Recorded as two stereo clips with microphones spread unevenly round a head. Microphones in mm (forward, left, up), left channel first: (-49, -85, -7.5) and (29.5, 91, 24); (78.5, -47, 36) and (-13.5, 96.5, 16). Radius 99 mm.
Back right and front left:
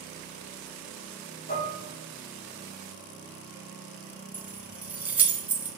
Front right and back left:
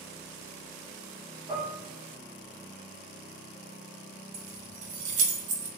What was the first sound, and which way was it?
Dishes clattering, 165° right.